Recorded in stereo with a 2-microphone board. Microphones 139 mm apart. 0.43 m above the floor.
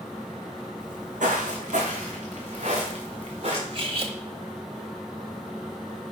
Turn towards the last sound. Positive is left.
turn(degrees=-45)  # may be behind; listen again after turning